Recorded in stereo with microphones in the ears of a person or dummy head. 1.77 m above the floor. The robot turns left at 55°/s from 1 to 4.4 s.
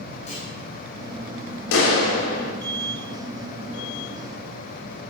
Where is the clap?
85° left, 4.5 m; by 2.5 s 40° left, 4.5 m.